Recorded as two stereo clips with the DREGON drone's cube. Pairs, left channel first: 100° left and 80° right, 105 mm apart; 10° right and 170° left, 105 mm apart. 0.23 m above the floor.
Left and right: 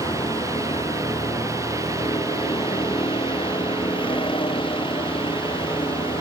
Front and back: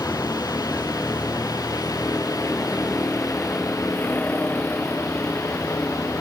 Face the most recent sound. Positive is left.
turn(degrees=65)